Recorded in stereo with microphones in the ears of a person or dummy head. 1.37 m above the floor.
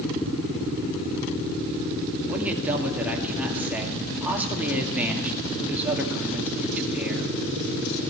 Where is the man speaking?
5° right (ahead or behind), 2 m.